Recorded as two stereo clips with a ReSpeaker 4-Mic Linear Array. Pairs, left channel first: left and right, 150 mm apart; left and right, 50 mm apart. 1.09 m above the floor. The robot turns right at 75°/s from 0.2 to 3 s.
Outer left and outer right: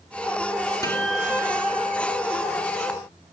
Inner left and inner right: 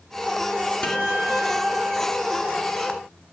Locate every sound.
0.8 s a guitar: 155° left, 2.5 m; by 2.0 s 115° right, 2.5 m